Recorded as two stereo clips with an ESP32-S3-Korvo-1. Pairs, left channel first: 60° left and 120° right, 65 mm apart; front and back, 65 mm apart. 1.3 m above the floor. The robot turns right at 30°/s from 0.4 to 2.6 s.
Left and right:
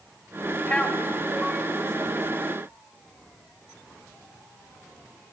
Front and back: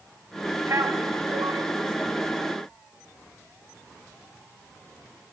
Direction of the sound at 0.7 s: 135° left.